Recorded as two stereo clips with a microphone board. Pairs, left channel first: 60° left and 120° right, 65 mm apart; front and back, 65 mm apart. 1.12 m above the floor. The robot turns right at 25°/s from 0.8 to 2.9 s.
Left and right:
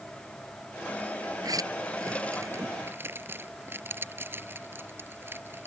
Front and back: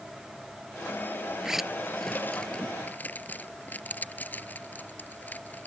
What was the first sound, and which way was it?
A zipper, 100° right.